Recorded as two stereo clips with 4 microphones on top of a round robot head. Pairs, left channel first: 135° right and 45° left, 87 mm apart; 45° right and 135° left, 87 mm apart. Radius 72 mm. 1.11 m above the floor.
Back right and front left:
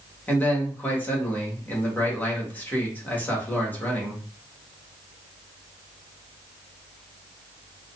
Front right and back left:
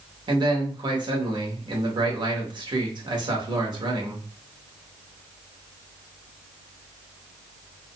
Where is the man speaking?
160° left, 1.5 m.